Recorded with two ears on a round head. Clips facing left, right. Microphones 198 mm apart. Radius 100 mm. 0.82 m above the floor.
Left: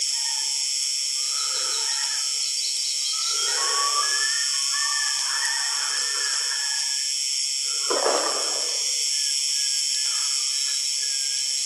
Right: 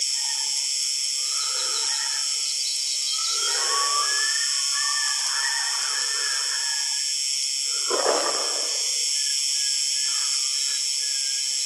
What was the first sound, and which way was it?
An insect, centre (ahead or behind).